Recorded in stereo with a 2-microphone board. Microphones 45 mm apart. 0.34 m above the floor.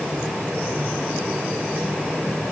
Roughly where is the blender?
I don't hear a blender.